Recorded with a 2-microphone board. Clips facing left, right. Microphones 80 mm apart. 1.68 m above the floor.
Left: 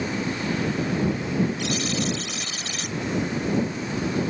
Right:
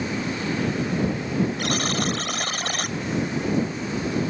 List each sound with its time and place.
1.6 s a buzzer: 50° right (ahead or behind)